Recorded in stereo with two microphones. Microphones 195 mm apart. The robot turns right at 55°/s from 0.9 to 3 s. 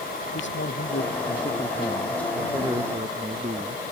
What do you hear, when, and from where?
0.3 s a man speaking: 100° left; by 3.9 s 145° right